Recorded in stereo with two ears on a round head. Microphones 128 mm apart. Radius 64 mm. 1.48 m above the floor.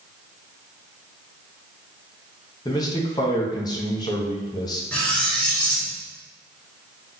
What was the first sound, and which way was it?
A man speaking, 30° left (ahead or behind).